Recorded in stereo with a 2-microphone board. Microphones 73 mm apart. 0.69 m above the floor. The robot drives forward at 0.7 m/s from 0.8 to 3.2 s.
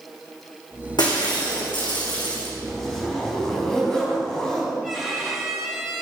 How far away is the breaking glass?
About 3.5 m.